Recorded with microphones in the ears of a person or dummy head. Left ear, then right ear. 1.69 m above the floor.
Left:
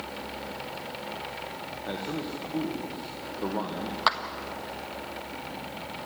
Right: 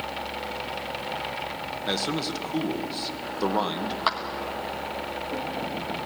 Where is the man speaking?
70° right (ahead or behind), 1.8 m.